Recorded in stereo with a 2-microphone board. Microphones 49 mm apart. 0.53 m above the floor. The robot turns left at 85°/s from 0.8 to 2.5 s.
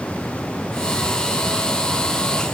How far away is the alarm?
I don't hear an alarm.